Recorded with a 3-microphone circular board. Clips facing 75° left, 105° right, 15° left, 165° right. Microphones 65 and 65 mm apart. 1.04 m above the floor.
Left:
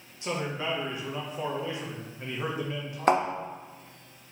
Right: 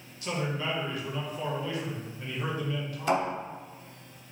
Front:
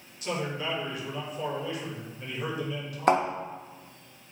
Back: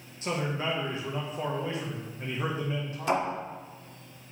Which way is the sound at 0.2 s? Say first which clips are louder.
Even, back 1 dB; 140° left.